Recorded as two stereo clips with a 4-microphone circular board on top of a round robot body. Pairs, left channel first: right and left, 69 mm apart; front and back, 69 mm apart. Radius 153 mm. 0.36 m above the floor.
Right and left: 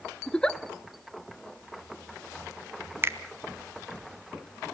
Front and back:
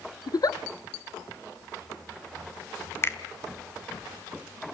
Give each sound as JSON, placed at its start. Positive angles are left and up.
{"t": 0.3, "sound": "a giggle", "azimuth_deg": -10, "distance_m": 0.7}
{"t": 3.0, "sound": "a finger snap", "azimuth_deg": 45, "distance_m": 1.4}